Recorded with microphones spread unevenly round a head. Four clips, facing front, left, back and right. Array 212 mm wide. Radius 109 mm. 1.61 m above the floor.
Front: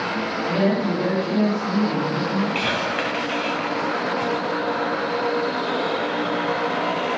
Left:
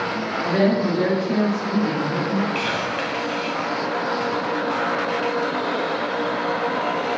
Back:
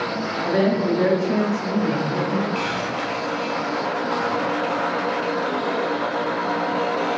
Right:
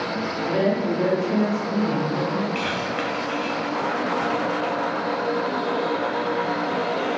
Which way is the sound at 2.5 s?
10° right.